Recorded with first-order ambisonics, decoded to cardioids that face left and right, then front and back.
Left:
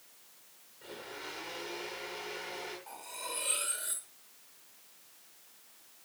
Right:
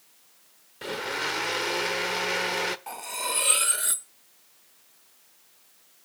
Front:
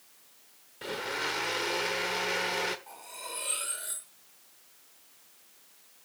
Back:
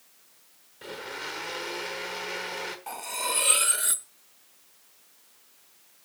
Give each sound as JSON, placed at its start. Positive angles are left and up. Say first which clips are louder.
{"t": 0.8, "sound": "a blender", "louder": "right 15 dB, front 4 dB", "azimuth_deg": -75, "distance_m": 1.0}
{"t": 2.9, "sound": "cutlery clinking", "louder": "right 10 dB, back 11 dB", "azimuth_deg": -135, "distance_m": 1.0}